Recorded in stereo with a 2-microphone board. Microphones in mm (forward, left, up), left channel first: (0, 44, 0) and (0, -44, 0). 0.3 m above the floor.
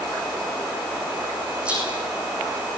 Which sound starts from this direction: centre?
A rattle, at 1.6 s.